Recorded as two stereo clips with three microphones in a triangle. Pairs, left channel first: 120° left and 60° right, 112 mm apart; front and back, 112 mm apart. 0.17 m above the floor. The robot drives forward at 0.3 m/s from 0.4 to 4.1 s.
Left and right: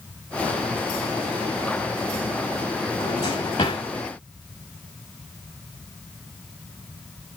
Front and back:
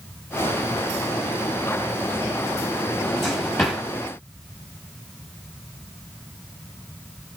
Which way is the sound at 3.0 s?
90° left.